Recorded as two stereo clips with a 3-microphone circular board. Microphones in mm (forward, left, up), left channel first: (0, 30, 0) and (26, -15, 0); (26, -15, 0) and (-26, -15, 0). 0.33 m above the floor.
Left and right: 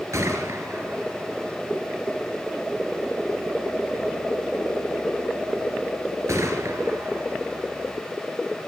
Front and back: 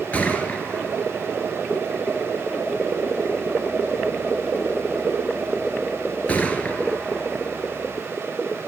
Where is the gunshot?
60° right, 1.4 m.